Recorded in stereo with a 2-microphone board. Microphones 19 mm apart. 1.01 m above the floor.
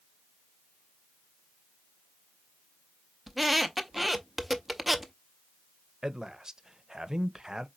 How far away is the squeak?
About 0.6 m.